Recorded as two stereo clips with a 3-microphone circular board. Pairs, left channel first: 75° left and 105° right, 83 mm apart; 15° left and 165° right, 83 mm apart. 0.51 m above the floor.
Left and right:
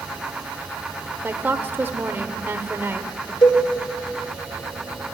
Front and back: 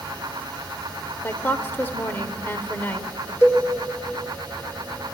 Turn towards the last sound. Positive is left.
turn(degrees=75)